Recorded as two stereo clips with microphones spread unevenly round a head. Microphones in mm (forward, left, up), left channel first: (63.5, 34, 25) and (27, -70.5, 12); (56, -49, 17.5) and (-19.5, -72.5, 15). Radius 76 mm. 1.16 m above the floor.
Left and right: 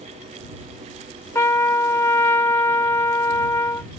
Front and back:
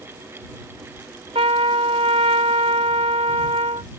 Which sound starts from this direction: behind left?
A trumpet, at 1.4 s.